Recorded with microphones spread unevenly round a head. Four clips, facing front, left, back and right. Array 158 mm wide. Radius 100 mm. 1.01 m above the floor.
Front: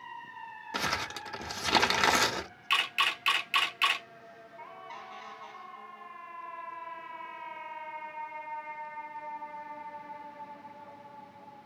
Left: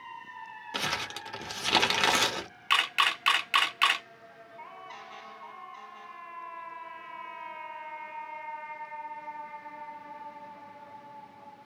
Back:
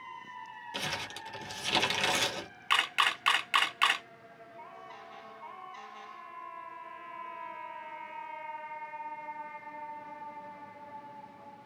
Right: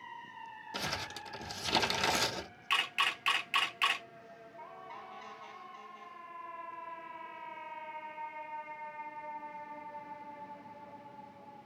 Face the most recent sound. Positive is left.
turn(degrees=120)